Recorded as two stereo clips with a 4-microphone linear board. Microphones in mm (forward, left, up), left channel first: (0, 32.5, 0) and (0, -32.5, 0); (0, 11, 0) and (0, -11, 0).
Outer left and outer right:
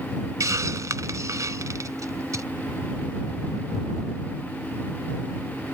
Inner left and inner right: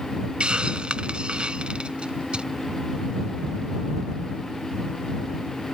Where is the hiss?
55° right (ahead or behind).